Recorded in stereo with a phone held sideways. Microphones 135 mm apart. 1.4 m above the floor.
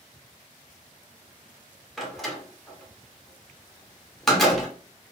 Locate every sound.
2.0 s a door slam: centre (ahead or behind), 0.8 m